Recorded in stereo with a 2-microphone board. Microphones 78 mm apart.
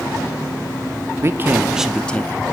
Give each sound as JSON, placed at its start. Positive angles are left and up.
{"t": 1.2, "sound": "a man speaking", "side_deg": -35, "distance_m": 0.8}